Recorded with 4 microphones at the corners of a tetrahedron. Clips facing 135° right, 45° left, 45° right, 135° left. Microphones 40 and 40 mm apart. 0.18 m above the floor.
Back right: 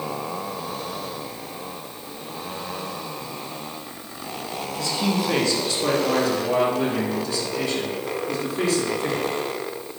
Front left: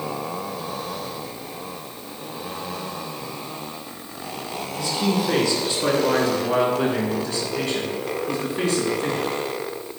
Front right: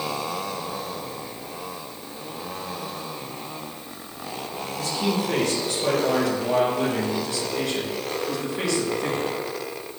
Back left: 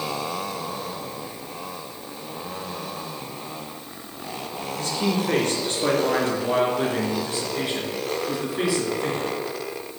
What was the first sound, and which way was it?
A man speaking, 110° left.